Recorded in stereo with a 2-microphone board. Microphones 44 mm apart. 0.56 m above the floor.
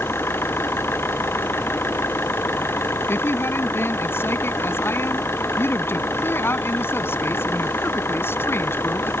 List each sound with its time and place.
0.0 s an engine running: 65° left (ahead or behind)
3.1 s a woman speaking: 65° left (ahead or behind)